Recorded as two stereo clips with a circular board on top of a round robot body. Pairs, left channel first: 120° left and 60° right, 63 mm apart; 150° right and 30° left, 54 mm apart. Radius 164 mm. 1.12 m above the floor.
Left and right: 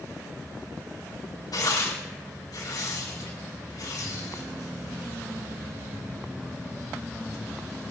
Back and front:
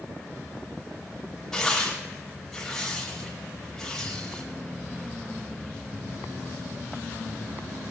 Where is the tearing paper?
130° left, 5 m.